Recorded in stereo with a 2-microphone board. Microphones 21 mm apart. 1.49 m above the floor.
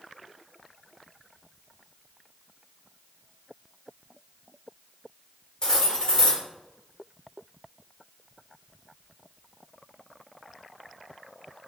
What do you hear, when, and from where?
5.6 s cutlery clinking: 35° left (ahead or behind), 1.4 m